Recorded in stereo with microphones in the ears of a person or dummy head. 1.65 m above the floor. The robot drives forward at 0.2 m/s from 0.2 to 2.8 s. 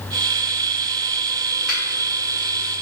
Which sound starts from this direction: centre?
A finger snap, at 1.7 s.